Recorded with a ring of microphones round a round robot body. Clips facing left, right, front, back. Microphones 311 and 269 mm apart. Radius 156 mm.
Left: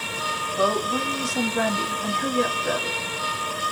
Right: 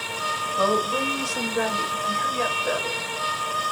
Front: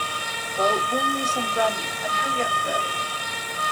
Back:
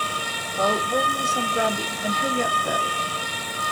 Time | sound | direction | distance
0.6 | a woman speaking | 85° left | 1.7 m